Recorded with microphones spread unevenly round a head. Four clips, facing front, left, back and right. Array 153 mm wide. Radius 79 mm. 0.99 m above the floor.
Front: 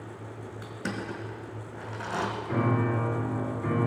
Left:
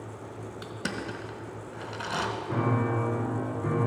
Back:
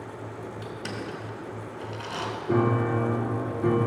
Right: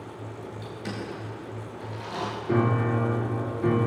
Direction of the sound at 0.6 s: 65° left.